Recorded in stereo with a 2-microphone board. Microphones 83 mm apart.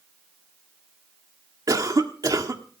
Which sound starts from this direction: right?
A cough, at 1.7 s.